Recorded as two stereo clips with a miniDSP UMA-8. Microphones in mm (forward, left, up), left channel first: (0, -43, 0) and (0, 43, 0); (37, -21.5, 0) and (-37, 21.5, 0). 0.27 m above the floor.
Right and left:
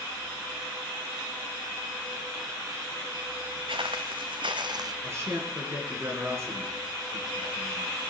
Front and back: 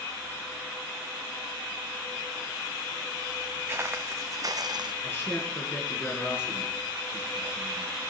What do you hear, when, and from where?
3.7 s footsteps: 85° left, 1.2 m; by 4.9 s 130° left, 0.7 m
5.0 s a man speaking: 35° left, 4 m